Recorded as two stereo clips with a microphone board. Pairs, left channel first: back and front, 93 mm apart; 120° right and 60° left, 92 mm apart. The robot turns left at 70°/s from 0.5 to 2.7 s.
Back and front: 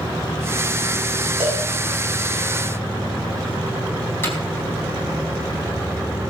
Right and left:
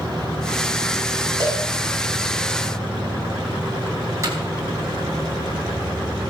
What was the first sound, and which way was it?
A cowbell, 15° left.